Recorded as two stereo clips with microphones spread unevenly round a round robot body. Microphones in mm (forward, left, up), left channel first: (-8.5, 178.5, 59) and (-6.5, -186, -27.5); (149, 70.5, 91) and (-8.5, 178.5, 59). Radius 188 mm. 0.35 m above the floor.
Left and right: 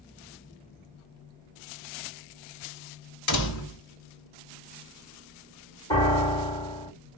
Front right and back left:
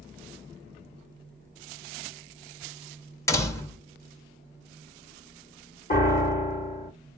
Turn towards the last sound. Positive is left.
turn(degrees=0)